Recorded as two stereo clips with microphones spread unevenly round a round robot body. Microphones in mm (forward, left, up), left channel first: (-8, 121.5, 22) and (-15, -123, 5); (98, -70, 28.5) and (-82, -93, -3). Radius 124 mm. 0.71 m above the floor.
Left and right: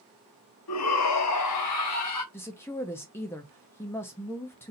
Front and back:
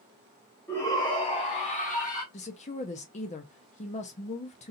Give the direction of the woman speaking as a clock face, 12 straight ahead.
12 o'clock.